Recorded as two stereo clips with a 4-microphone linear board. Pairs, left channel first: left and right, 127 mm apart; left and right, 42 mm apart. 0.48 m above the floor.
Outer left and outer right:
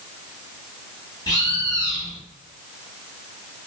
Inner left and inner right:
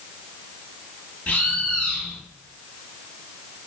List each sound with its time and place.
1.3 s a bird: 35° left (ahead or behind), 1.3 m